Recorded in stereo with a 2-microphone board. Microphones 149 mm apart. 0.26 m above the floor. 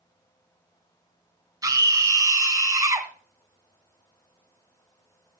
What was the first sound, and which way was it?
A scream, 25° right (ahead or behind).